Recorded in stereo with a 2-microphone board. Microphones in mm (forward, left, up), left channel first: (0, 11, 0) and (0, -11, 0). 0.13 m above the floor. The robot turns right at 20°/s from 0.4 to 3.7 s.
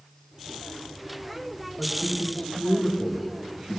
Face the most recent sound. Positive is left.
turn(degrees=-25)  # may be behind; listen again after turning